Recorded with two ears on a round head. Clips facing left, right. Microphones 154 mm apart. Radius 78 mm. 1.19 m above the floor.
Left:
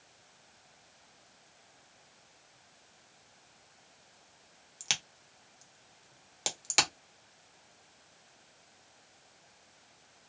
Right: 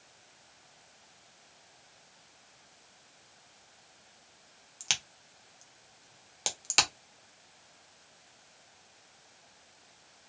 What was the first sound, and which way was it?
A crack, 5° left (ahead or behind).